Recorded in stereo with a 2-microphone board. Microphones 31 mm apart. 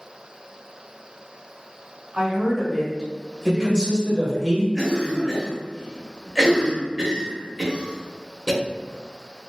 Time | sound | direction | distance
2.1 | a woman speaking | 25° right (ahead or behind) | 1.4 m
3.5 | a man speaking | 20° left (ahead or behind) | 1.2 m
4.8 | a cough | 15° right (ahead or behind) | 1.3 m